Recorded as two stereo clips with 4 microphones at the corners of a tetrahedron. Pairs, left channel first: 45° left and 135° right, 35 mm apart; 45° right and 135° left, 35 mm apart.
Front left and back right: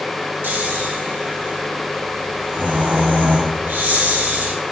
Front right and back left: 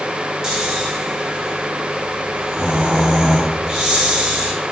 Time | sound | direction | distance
0.4 | snoring | 150° right | 2.5 m